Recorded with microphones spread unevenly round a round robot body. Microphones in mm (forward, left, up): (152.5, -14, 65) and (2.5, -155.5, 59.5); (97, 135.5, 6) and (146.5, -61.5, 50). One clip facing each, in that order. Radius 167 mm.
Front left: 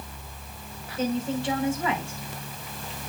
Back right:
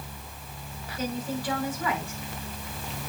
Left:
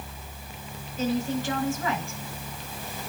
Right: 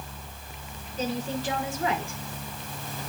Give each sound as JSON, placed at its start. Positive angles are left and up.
{"t": 1.0, "sound": "a woman speaking", "azimuth_deg": -20, "distance_m": 5.5}